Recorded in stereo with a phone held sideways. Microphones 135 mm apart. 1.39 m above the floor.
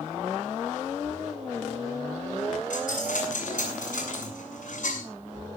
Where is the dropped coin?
70° left (ahead or behind), 6.5 m.